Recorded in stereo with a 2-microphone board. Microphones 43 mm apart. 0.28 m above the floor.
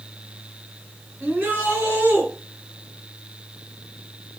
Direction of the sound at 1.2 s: 45° right (ahead or behind).